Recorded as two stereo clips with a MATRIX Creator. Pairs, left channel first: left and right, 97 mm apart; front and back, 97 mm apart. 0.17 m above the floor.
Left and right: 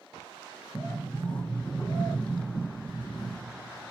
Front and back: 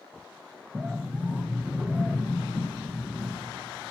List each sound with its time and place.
0.7 s a sliding door: 145° left, 1.0 m